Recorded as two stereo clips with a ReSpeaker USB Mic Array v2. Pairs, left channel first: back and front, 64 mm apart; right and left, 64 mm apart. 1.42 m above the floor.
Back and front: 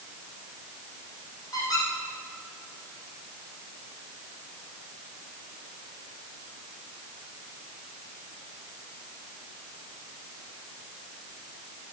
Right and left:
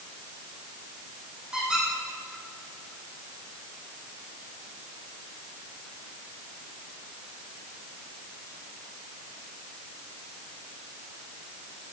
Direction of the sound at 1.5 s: 165° left.